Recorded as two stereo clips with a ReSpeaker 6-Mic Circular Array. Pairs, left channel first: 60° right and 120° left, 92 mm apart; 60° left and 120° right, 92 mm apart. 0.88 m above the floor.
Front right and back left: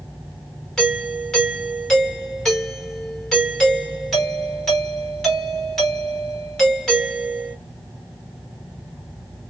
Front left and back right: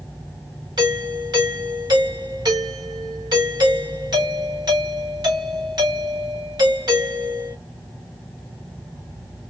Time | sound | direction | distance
0.8 | a doorbell | 145° right | 2.5 m